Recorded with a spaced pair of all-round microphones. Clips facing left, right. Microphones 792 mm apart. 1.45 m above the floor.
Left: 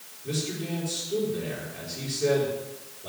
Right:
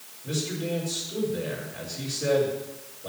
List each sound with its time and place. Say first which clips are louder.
0.2 s a man speaking: right 1 dB; centre (ahead or behind), 5.5 m